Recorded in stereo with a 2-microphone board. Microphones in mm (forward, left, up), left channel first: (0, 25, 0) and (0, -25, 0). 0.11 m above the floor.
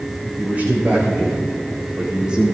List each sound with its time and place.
0.4 s a man speaking: 30° right (ahead or behind), 7 m; by 2.5 s 15° right (ahead or behind), 5 m